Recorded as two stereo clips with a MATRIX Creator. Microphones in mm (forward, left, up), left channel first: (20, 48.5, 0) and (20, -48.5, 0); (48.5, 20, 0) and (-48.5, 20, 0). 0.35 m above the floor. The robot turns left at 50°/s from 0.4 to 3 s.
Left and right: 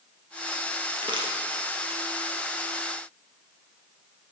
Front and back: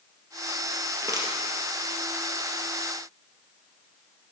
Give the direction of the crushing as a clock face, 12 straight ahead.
4 o'clock.